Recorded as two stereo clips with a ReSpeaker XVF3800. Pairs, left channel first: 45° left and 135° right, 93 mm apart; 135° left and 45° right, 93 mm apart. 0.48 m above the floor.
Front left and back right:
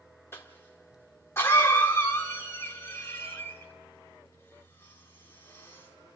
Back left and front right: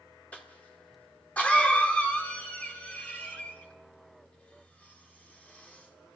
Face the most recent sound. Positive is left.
turn(degrees=75)